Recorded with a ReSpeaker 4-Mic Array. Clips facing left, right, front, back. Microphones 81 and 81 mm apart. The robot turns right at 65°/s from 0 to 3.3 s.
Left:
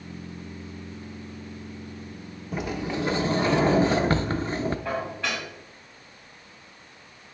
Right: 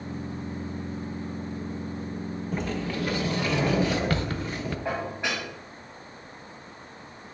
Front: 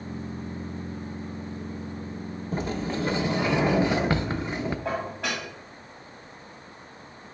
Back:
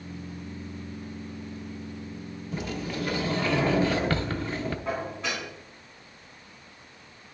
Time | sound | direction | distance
2.5 | a sliding door | 10° left | 0.6 m
4.8 | dishes clattering | 15° right | 3.5 m